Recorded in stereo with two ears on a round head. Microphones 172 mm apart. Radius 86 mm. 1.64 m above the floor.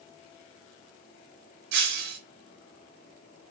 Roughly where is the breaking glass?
Right.